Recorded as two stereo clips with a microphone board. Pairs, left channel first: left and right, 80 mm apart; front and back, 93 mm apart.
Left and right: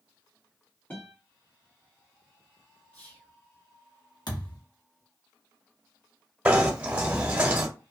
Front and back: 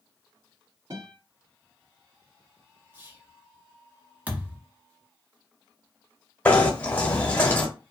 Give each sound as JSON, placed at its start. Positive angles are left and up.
{"t": 0.9, "sound": "a guitar", "azimuth_deg": 150, "distance_m": 1.9}
{"t": 2.9, "sound": "whispering", "azimuth_deg": 135, "distance_m": 1.0}
{"t": 4.3, "sound": "a thud", "azimuth_deg": 105, "distance_m": 1.0}
{"t": 6.5, "sound": "knocking", "azimuth_deg": -45, "distance_m": 1.0}